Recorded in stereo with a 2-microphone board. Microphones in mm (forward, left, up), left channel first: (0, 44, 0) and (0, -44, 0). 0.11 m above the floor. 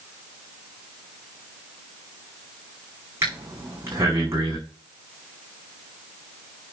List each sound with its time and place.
3.2 s breathing: 30° right (ahead or behind), 6 m